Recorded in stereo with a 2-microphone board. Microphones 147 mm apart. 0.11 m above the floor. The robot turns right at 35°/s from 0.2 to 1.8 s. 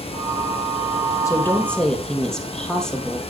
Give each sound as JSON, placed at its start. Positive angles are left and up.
{"t": 1.2, "sound": "a woman speaking", "side_deg": 20, "distance_m": 2.5}